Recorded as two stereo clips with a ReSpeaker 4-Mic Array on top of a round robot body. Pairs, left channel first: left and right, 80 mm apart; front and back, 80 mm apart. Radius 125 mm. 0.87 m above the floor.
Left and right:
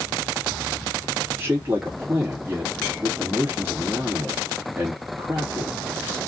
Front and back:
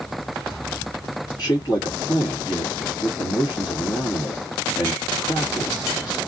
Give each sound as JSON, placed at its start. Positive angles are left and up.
{"t": 1.4, "sound": "a man speaking", "azimuth_deg": -30, "distance_m": 2.5}